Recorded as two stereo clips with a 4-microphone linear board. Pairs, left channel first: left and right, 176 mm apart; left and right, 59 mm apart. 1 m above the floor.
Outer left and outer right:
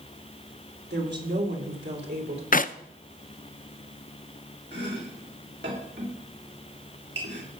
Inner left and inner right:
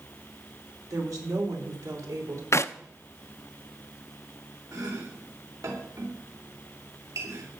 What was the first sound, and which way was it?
A woman speaking, 75° right (ahead or behind).